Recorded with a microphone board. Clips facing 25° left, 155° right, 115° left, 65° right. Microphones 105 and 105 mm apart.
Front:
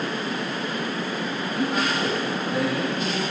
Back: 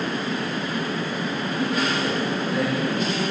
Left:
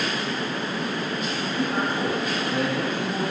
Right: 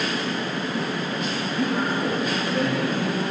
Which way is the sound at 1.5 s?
75° left.